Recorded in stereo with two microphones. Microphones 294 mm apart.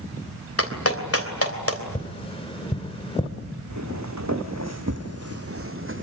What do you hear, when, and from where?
0.6 s a clap: 50° left (ahead or behind), 3 m
1.9 s tapping: 20° left (ahead or behind), 2.5 m
3.7 s footsteps: 70° right (ahead or behind), 2 m; by 6.0 s 40° right (ahead or behind), 1.7 m